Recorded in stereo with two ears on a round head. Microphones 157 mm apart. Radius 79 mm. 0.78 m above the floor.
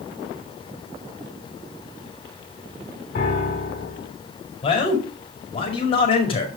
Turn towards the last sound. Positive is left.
turn(degrees=35)  # may be behind; listen again after turning